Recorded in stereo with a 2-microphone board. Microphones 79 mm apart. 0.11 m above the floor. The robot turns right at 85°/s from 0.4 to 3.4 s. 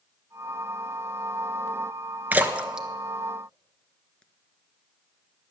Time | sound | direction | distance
2.3 | a splash | 25° right (ahead or behind) | 0.8 m